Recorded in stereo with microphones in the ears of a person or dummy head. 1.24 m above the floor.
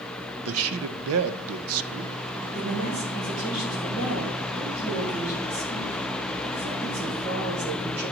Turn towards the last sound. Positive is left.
turn(degrees=-80)